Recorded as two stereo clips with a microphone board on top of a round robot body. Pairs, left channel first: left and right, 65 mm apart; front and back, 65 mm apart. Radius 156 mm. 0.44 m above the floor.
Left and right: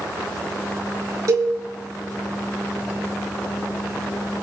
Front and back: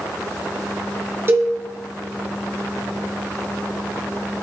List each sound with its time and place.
1.3 s a cowbell: 130° right, 4.5 m